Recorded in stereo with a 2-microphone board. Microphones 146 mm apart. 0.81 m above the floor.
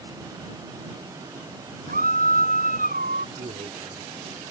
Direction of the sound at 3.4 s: 50° right (ahead or behind).